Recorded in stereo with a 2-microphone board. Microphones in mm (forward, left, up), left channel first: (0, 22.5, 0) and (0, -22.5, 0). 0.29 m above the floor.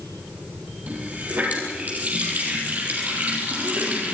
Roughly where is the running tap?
Right.